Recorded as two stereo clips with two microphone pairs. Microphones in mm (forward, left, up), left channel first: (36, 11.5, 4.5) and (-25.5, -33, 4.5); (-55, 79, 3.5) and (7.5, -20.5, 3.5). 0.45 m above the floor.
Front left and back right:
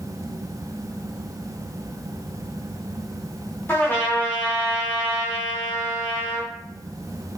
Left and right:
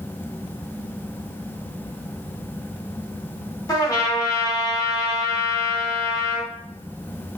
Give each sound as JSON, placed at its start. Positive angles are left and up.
{"t": 3.7, "sound": "a trumpet", "azimuth_deg": 85, "distance_m": 0.7}